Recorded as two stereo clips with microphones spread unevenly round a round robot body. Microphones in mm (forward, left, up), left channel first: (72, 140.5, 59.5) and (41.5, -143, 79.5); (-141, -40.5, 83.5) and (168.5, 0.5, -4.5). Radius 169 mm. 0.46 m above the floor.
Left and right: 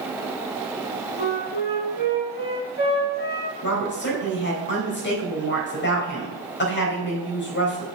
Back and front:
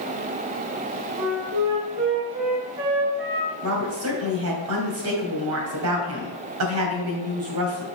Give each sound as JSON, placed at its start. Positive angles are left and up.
{"t": 1.2, "sound": "a flute", "azimuth_deg": 30, "distance_m": 2.5}
{"t": 3.6, "sound": "a woman speaking", "azimuth_deg": 35, "distance_m": 3.0}